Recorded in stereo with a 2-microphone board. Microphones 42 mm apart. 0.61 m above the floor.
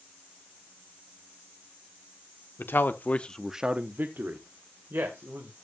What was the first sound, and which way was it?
A man speaking, 60° left (ahead or behind).